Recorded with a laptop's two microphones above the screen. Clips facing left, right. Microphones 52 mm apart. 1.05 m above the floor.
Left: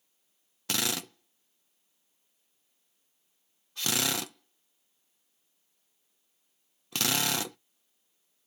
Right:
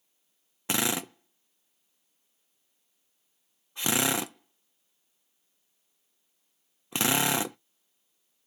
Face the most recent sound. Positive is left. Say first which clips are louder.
# right 4 dB
turn(degrees=-20)  # may be behind; listen again after turning